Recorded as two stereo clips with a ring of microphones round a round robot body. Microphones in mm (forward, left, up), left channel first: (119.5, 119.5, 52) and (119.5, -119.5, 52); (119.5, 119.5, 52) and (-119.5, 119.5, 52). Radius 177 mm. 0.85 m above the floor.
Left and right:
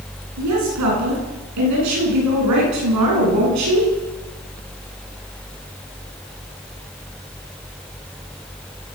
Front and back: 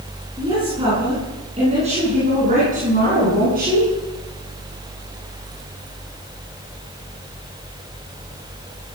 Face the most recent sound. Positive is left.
turn(degrees=-115)